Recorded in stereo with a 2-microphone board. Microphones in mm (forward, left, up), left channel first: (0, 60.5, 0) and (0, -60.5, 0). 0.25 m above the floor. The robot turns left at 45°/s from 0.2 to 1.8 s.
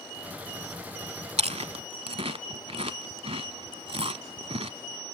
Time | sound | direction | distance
1.4 | chewing | 65° right (ahead or behind) | 0.7 m